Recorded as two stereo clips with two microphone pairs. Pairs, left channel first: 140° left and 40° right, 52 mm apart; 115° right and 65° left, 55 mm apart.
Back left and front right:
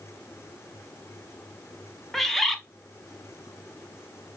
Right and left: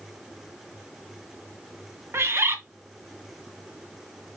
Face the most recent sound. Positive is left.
turn(degrees=55)